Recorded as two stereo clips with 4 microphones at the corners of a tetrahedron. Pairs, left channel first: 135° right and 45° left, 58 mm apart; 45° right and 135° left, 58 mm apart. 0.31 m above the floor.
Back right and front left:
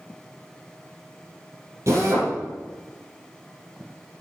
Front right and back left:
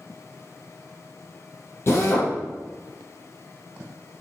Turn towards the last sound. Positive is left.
turn(degrees=0)